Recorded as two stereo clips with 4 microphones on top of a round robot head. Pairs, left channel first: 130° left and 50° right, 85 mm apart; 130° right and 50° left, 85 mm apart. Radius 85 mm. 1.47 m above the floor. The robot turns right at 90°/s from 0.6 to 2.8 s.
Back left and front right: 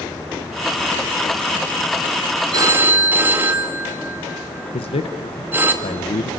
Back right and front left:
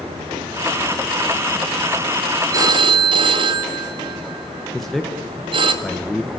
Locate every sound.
2.5 s a phone ringing: 5° right, 1.9 m; by 5.7 s 20° left, 1.9 m
4.7 s a man speaking: 140° left, 1.2 m